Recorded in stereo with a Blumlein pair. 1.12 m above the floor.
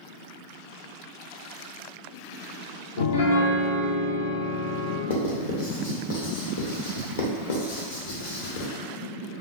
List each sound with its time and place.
3.0 s a piano: 65° left, 0.6 m
5.1 s writing: 60° left, 0.9 m